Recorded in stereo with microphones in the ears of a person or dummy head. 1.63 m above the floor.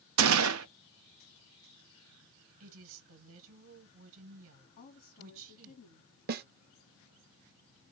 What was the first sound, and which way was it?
A gunshot, 75° right (ahead or behind).